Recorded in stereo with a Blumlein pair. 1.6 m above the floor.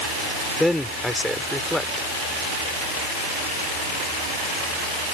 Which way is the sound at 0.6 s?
5° left.